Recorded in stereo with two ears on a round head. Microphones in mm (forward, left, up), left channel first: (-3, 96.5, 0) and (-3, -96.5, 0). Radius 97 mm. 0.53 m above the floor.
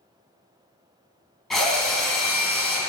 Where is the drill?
Centre (ahead or behind), 2.5 m.